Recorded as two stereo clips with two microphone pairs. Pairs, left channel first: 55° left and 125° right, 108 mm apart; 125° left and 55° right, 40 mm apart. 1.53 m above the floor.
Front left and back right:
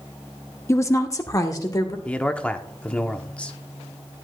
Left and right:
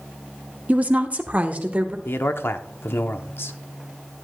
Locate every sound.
0.7 s a woman speaking: 10° right, 0.7 m; by 1.9 s 5° right, 1.5 m
2.0 s a man speaking: 135° left, 0.7 m